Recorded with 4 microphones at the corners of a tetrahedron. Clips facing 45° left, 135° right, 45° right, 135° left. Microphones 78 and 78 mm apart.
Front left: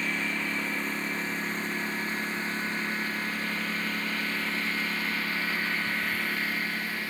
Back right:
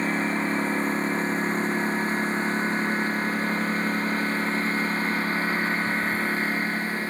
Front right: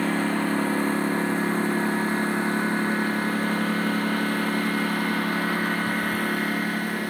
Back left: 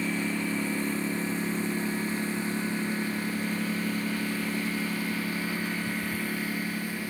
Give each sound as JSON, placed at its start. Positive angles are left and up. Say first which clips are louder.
{"t": 0.0, "sound": "a lawn mower", "louder": "back right 6 dB, front right 6 dB", "azimuth_deg": -80}